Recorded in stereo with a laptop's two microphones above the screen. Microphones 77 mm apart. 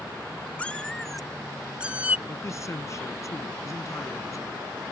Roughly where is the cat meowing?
Centre.